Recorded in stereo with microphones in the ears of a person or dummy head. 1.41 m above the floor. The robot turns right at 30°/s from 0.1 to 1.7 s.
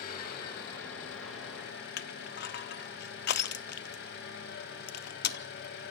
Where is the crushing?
55° left (ahead or behind), 0.6 m.